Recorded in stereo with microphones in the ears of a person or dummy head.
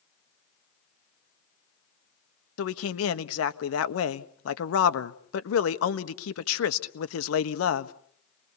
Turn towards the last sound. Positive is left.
turn(degrees=85)